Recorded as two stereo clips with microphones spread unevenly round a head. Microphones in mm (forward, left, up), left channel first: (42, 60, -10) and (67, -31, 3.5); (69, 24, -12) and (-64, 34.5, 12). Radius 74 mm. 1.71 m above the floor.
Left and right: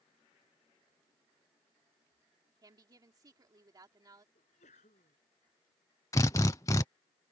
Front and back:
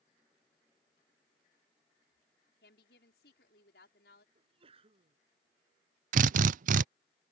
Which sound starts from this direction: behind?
A drill, at 6.1 s.